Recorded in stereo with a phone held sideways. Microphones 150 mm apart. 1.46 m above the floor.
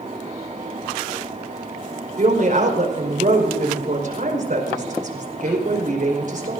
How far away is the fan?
About 2 m.